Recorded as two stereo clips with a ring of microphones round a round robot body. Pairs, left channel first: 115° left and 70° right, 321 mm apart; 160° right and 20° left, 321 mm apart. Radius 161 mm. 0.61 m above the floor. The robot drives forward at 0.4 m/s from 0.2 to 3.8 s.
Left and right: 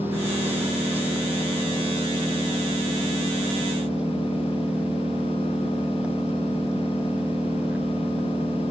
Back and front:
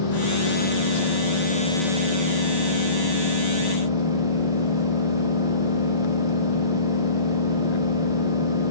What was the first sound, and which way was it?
An engine running, 150° right.